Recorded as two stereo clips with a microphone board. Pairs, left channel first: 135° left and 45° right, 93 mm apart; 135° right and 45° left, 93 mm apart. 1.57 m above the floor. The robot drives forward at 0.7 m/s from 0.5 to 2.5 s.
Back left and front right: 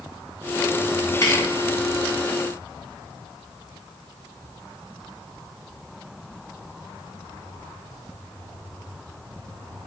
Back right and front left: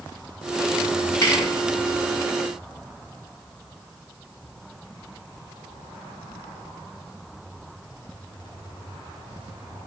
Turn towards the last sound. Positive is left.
turn(degrees=175)